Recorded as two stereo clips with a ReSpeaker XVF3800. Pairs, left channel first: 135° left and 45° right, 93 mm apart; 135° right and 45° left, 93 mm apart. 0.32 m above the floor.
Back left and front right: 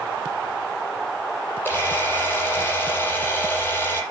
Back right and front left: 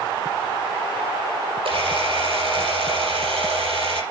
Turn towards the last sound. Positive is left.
turn(degrees=65)